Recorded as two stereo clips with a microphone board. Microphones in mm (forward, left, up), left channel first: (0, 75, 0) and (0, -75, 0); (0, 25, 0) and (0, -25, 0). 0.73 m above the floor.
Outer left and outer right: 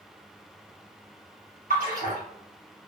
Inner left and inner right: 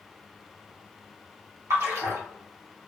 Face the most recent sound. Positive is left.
turn(degrees=-60)  # may be behind; listen again after turning